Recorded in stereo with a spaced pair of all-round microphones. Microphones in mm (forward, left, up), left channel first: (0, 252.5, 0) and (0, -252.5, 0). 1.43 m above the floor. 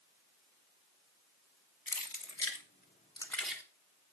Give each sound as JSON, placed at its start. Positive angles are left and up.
{"t": 1.9, "sound": "keys jangling", "side_deg": 45, "distance_m": 1.3}